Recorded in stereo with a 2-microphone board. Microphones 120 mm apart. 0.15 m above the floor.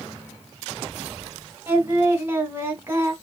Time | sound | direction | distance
1.7 | singing | 20° right (ahead or behind) | 1.1 m